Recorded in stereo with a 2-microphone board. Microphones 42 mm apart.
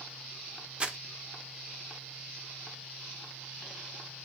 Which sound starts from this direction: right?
Crumpling, at 0.8 s.